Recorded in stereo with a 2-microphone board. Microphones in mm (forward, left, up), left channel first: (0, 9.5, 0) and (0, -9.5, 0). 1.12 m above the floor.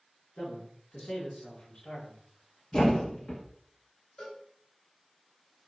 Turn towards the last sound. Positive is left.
turn(degrees=65)  # may be behind; listen again after turning